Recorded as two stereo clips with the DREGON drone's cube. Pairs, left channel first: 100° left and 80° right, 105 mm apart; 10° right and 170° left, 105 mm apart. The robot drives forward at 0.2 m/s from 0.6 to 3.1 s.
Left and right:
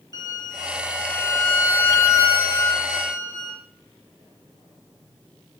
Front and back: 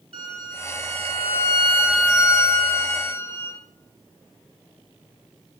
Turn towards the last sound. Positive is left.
turn(degrees=160)